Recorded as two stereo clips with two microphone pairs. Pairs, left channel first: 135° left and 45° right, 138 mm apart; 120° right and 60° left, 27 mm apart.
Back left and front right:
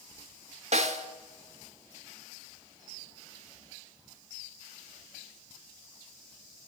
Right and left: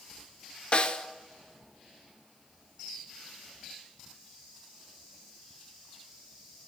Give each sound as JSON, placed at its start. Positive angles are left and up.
{"t": 0.7, "sound": "a snare drum", "azimuth_deg": -75, "distance_m": 0.6}